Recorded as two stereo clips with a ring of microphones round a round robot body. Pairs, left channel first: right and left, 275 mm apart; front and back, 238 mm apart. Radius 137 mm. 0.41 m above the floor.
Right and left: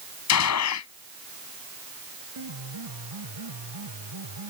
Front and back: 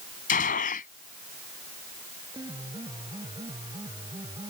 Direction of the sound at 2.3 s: 105° left.